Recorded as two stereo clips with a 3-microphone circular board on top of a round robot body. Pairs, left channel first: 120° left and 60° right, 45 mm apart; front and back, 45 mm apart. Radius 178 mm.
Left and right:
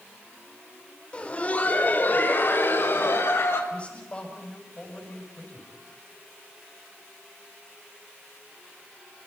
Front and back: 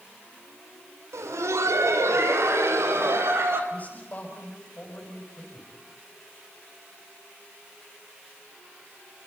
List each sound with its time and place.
1.1 s laughter: 175° right, 3.5 m; by 3.6 s 150° left, 5.5 m
3.7 s a man speaking: 55° left, 6.5 m